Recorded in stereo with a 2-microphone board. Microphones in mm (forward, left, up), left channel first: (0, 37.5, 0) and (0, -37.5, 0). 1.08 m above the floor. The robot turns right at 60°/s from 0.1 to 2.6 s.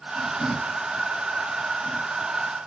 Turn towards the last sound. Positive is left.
No sound to turn to.